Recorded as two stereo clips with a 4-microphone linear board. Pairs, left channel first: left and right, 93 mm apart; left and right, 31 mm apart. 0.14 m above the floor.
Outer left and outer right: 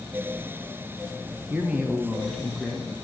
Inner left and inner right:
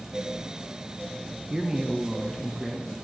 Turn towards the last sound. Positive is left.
turn(degrees=20)  # may be behind; listen again after turning